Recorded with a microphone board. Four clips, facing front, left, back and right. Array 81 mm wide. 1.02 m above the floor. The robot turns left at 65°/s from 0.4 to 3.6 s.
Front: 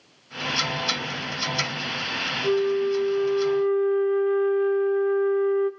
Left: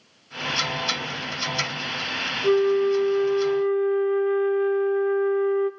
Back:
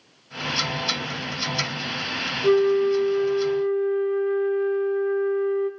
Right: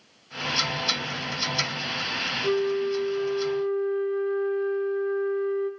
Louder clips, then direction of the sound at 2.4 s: Left 6 dB, back 4 dB; 155° left.